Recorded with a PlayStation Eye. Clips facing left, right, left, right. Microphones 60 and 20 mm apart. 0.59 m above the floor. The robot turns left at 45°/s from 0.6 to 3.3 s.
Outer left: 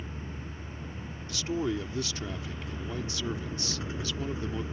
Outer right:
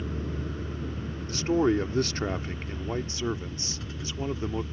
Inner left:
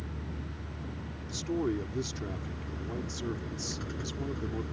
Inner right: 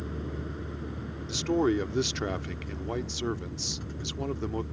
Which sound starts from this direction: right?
A vehicle, at 0.0 s.